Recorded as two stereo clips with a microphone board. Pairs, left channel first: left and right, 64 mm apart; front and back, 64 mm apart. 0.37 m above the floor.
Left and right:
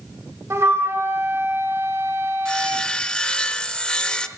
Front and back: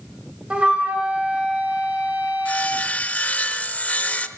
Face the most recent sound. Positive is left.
turn(degrees=30)